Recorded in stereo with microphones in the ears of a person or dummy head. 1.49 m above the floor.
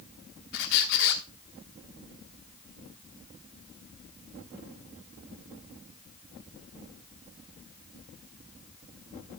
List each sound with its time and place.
0.5 s a squeak: 50° left (ahead or behind), 1.4 m